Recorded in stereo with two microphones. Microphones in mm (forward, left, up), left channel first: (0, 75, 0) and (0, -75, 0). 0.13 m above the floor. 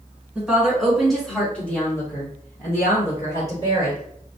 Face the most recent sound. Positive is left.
turn(degrees=25)  # may be behind; listen again after turning